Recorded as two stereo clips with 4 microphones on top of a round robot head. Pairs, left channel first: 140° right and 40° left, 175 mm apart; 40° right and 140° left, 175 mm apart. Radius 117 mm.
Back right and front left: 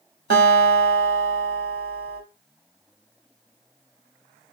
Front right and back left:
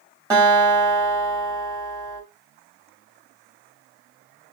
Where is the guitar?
70° left, 1.4 m.